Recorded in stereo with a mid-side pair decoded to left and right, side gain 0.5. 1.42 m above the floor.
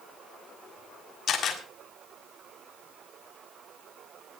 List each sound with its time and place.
1.3 s a camera shutter: 45° left, 6 m